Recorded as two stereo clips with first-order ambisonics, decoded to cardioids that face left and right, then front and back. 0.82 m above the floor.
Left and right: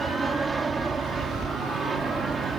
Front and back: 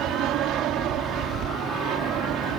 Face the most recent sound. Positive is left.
turn(degrees=-165)